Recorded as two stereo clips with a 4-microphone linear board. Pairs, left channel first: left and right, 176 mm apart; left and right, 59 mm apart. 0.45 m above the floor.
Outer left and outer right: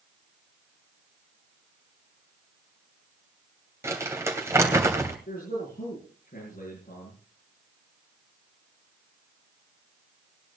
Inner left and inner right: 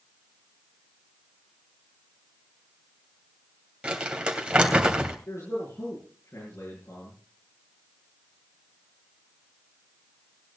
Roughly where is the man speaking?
Left.